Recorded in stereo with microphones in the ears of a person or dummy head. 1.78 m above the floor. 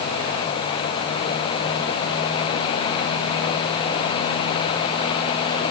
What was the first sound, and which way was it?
Only background noise.